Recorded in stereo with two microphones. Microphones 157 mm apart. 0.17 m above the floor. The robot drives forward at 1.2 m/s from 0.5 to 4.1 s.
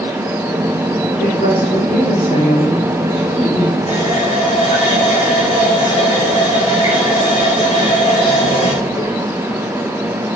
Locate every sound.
1.2 s a woman speaking: 70° left (ahead or behind), 8.5 m; by 3.8 s 55° left (ahead or behind), 10 m
3.9 s a running tap: 45° left (ahead or behind), 7 m; by 9.2 s 40° left (ahead or behind), 7 m